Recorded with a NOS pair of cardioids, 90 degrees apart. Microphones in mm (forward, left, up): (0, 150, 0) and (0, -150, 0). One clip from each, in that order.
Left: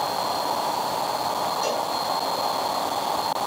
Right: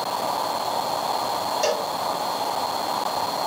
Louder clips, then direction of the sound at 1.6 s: Right 2 dB; 50° right.